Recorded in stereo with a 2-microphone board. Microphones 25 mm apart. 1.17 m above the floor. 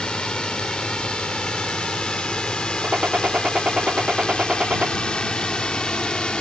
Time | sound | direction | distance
0.0 | a drone | 40° left (ahead or behind) | ?
2.8 | a gunshot | 55° right (ahead or behind) | ?